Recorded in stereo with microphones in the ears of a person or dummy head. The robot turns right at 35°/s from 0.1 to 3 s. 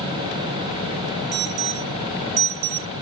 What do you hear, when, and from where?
1.3 s an alarm: 50° right (ahead or behind); by 3.0 s 70° right (ahead or behind)